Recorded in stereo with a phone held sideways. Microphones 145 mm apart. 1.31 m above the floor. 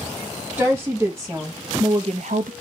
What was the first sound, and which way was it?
A woman speaking, 15° right (ahead or behind).